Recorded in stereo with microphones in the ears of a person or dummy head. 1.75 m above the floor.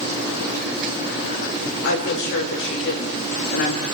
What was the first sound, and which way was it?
A woman speaking, 55° left (ahead or behind).